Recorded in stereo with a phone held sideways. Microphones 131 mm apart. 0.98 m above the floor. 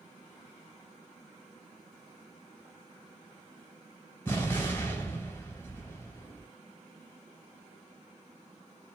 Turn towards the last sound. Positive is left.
turn(degrees=15)  # may be behind; listen again after turning